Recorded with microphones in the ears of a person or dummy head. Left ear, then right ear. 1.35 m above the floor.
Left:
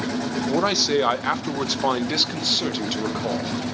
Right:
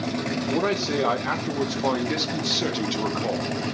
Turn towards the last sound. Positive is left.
turn(degrees=5)  # may be behind; listen again after turning